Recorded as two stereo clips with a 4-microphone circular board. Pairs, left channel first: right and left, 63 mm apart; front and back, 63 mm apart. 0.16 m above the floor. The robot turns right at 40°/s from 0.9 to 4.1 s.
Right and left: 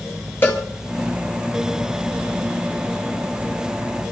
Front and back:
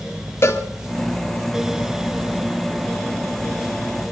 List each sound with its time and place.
0.4 s a cowbell: 40° right, 3 m